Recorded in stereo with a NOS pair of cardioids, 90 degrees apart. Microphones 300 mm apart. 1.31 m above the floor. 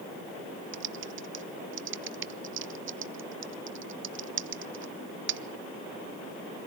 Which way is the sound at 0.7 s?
45° right.